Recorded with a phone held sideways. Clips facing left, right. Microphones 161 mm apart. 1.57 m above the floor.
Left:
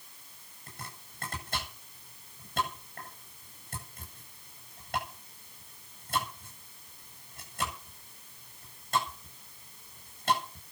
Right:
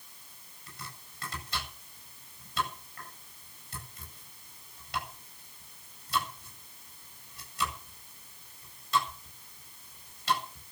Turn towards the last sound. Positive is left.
turn(degrees=50)  # may be behind; listen again after turning